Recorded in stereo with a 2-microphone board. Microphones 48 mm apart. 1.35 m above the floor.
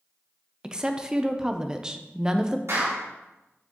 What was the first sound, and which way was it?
A woman speaking, 15° right (ahead or behind).